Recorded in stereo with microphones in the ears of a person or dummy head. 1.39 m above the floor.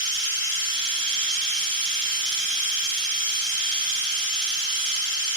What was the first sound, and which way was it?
A machine running, 35° right (ahead or behind).